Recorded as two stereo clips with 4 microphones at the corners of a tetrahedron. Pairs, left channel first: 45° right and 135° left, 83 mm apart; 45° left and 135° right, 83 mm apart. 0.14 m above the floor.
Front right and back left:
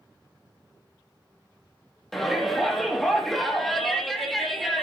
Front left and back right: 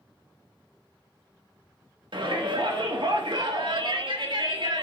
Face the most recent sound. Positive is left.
turn(degrees=-135)